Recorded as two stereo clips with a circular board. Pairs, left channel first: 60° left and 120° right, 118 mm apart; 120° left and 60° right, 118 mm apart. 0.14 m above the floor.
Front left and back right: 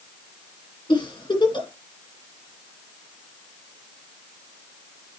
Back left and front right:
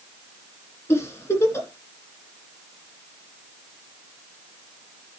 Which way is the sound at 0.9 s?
65° left.